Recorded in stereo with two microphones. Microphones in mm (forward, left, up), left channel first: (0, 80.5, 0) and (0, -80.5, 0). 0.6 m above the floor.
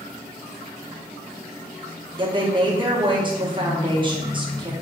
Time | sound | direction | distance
2.2 | a woman speaking | 30° right (ahead or behind) | 0.6 m